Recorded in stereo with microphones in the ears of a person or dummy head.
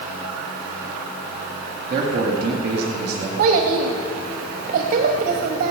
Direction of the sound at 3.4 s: 35° right (ahead or behind).